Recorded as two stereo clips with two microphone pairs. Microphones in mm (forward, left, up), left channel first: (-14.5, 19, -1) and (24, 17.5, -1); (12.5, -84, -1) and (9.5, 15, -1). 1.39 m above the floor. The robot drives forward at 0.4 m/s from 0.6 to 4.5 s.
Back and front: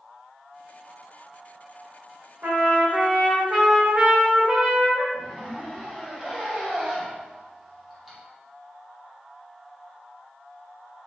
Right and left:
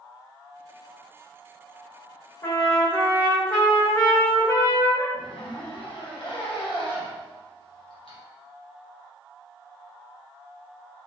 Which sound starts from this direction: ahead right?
A trumpet, at 2.4 s.